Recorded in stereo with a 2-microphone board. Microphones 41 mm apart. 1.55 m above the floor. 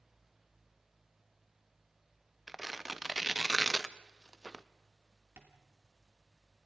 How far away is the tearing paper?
About 0.6 m.